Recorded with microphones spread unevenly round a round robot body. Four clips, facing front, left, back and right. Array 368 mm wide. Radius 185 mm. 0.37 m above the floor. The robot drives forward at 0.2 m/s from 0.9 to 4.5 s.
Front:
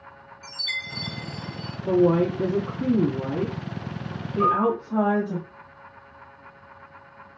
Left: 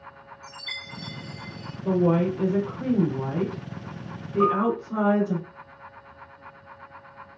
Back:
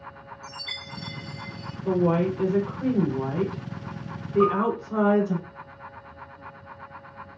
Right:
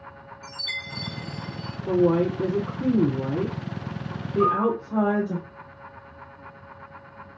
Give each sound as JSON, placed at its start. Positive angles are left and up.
{"t": 0.4, "sound": "a chime", "azimuth_deg": 30, "distance_m": 1.5}
{"t": 1.9, "sound": "a woman speaking", "azimuth_deg": 95, "distance_m": 1.5}
{"t": 4.4, "sound": "a piano", "azimuth_deg": -175, "distance_m": 1.4}